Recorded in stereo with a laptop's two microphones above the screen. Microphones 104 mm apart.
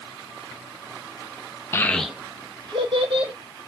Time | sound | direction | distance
1.7 | a child speaking | 25° left (ahead or behind) | 0.6 m